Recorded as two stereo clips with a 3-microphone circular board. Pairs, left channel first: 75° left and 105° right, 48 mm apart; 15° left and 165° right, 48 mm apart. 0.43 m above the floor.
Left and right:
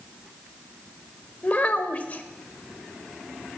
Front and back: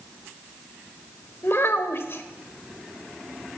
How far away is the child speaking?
About 1.2 m.